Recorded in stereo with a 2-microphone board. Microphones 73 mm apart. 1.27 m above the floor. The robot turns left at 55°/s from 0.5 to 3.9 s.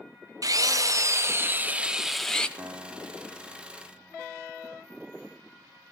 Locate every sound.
0.4 s a drill: 90° right, 0.7 m; by 2.5 s 165° left, 0.7 m
2.6 s a guitar: 130° right, 0.9 m; by 4.2 s 160° left, 0.9 m